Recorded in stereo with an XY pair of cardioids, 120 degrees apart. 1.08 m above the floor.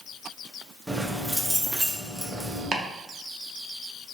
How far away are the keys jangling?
About 0.6 m.